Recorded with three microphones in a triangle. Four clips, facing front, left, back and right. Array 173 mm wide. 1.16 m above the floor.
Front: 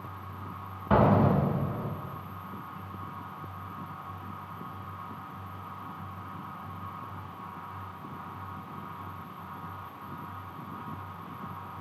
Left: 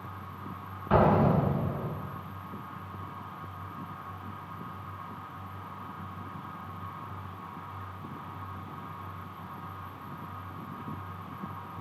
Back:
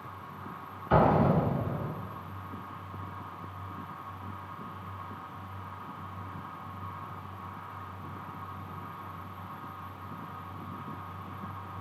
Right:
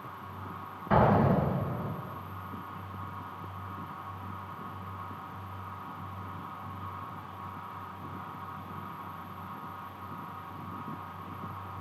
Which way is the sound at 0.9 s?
10° right.